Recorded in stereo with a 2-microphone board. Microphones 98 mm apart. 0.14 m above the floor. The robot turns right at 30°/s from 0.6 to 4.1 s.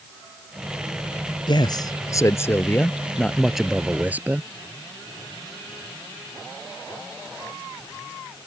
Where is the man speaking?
120° left; by 4.5 s 160° right.